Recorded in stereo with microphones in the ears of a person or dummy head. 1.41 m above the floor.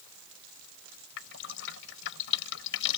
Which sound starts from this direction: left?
Dripping, at 1.2 s.